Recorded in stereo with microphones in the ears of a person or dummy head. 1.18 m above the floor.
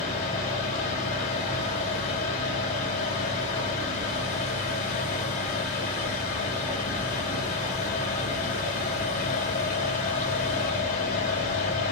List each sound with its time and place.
0.0 s a fan: 40° left (ahead or behind), 0.7 m